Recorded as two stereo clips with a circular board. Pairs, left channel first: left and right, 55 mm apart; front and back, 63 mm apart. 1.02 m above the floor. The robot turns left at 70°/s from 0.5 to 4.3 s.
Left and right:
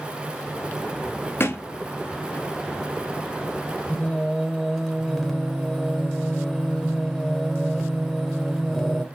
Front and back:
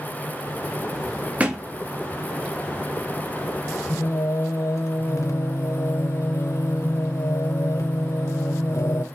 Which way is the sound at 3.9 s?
35° left.